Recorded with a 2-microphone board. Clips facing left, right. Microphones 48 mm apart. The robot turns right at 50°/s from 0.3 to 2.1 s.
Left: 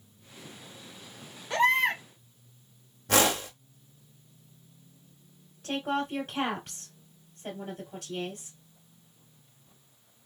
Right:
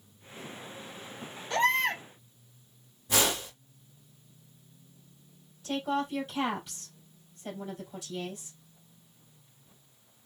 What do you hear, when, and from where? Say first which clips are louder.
1.5 s a baby crying: left 2 dB; 5° left (ahead or behind), 0.9 m; by 2.0 s 15° left (ahead or behind), 0.9 m
3.1 s a whoosh: left 4 dB; 75° left (ahead or behind), 1.8 m
5.6 s a woman speaking: even; 55° left (ahead or behind), 2.5 m